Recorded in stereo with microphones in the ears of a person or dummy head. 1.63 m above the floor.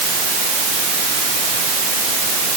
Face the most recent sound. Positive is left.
No sound to turn to.